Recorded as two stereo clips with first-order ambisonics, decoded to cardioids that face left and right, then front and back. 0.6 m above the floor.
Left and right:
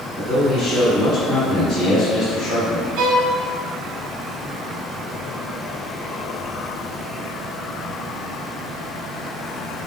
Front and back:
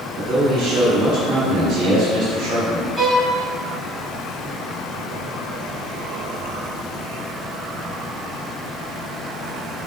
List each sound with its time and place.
0.2 s a man speaking: 170° left, 1.9 m
3.0 s a violin: 110° right, 1.3 m